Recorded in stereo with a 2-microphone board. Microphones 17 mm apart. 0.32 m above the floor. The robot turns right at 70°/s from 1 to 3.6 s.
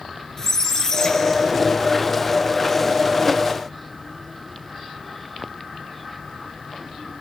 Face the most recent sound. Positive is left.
turn(degrees=-25)